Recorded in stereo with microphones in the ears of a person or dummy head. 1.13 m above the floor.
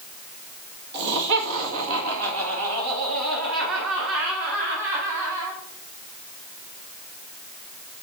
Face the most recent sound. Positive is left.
turn(degrees=-60)  # may be behind; listen again after turning